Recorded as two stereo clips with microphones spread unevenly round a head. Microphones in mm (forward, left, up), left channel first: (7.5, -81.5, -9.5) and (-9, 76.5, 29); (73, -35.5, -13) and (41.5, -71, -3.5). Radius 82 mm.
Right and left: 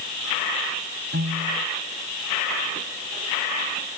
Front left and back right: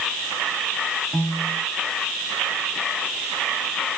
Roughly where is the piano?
Behind left.